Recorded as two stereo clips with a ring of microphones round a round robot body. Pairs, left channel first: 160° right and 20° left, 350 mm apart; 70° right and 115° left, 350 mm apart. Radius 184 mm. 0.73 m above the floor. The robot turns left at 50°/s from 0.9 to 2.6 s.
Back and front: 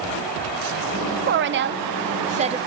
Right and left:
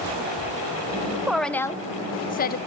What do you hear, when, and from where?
1.3 s a woman speaking: 30° left, 0.7 m; by 2.6 s 40° right, 0.7 m